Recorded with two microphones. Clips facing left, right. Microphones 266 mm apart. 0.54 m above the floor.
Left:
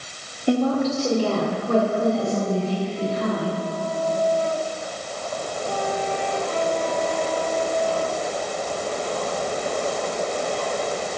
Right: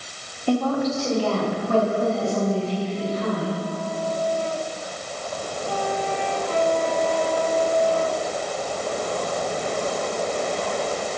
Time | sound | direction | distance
0.5 | a woman speaking | 15° left (ahead or behind) | 1.5 m